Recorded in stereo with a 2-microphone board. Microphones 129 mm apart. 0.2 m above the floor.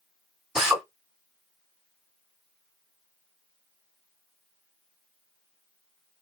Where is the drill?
5° right (ahead or behind), 1.7 m.